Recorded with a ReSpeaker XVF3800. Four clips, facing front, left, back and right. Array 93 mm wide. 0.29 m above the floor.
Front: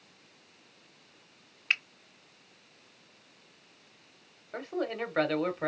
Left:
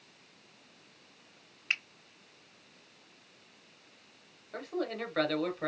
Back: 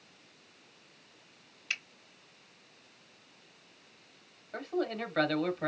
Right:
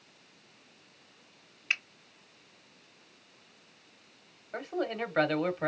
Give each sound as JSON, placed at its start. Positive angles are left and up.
{"t": 1.7, "sound": "a finger snap", "azimuth_deg": 0, "distance_m": 0.9}
{"t": 4.5, "sound": "a man speaking", "azimuth_deg": -50, "distance_m": 1.5}